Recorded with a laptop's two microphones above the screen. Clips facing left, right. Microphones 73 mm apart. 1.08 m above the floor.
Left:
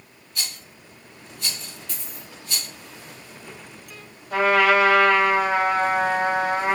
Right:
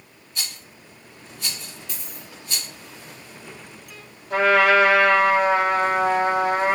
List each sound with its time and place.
0.3 s a rattle: 25° right (ahead or behind), 3.5 m
1.9 s a dropped coin: 15° right (ahead or behind), 2.0 m
4.3 s a trumpet: 40° right (ahead or behind), 3 m